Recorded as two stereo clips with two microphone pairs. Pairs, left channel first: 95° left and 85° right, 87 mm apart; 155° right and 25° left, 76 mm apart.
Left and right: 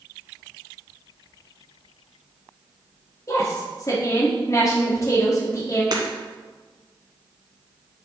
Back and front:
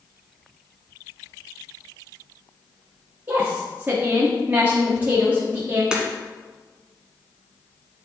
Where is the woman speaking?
70° left, 1.1 m.